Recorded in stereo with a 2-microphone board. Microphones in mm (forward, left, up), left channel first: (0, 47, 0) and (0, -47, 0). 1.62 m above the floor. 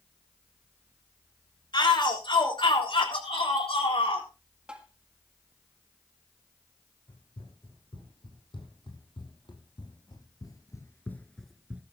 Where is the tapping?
10° right (ahead or behind), 1.7 m.